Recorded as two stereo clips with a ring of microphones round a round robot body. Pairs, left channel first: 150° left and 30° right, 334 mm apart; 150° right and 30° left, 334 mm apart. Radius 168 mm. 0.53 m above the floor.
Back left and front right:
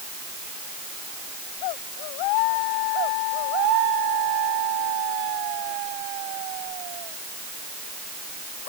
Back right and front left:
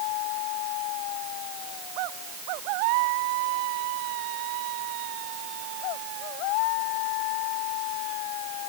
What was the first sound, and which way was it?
Only background noise.